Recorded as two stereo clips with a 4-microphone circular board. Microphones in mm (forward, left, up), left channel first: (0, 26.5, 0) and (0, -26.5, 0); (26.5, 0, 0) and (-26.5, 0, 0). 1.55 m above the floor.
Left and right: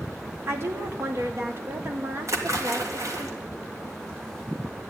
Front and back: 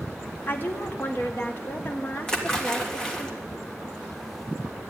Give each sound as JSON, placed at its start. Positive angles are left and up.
{"t": 0.5, "sound": "a woman speaking", "azimuth_deg": -50, "distance_m": 1.1}
{"t": 2.3, "sound": "a splash", "azimuth_deg": -75, "distance_m": 1.9}